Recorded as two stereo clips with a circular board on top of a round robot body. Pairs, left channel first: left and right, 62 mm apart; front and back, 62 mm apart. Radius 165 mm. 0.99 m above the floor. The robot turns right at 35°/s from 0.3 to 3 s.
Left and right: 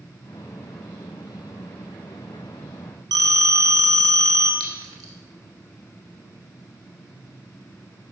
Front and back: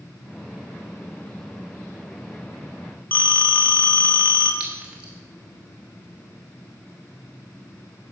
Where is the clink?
110° right, 1.0 m.